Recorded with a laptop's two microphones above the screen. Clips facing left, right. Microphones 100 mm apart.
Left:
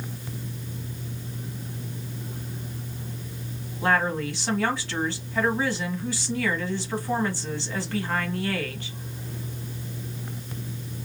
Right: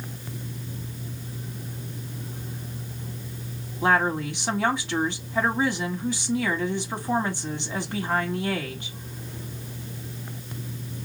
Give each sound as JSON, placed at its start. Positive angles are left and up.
{"t": 3.8, "sound": "a woman speaking", "side_deg": -20, "distance_m": 1.4}